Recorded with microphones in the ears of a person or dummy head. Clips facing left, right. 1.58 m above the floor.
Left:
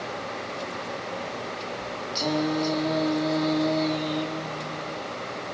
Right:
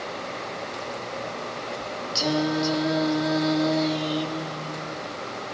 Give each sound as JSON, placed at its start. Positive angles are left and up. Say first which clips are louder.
{"t": 2.1, "sound": "singing", "louder": "right 1 dB", "side_deg": -15, "distance_m": 1.0}